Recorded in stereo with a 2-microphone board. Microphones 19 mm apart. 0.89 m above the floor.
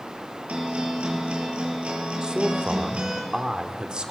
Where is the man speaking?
50° right (ahead or behind), 2.5 m.